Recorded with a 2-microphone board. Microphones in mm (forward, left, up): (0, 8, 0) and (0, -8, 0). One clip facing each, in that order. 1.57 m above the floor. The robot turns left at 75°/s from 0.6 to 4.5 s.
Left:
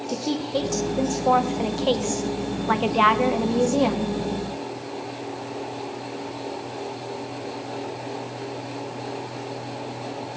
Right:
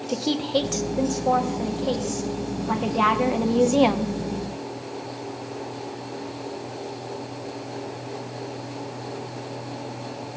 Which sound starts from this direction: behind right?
A woman speaking, at 0.1 s.